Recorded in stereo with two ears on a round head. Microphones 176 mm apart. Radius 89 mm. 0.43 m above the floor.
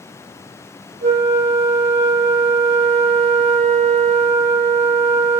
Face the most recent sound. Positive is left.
turn(degrees=-35)  # may be behind; listen again after turning